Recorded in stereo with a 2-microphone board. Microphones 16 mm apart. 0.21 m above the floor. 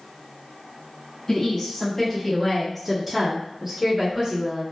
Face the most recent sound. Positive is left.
turn(degrees=-40)  # may be behind; listen again after turning